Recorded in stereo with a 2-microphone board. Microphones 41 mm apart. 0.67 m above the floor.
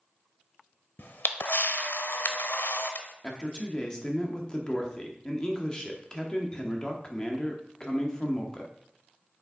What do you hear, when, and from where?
1.0 s a camera shutter: 60° left (ahead or behind), 0.8 m
3.2 s a man speaking: 20° left (ahead or behind), 1.0 m